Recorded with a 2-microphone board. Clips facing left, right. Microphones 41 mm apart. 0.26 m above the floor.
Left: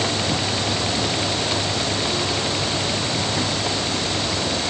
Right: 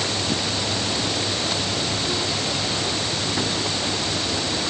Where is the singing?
No singing in this recording.